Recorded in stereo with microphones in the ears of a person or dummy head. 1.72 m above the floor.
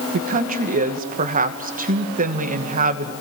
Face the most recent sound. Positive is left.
turn(degrees=-40)  # may be behind; listen again after turning